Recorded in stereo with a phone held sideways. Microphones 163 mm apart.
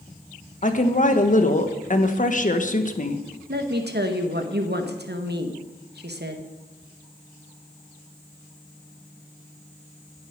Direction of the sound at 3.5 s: 80° right.